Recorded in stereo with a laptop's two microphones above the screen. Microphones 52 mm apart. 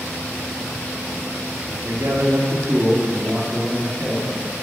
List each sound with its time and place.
1.8 s a man speaking: 65° right (ahead or behind), 1.6 m; by 4.5 s 20° right (ahead or behind), 3 m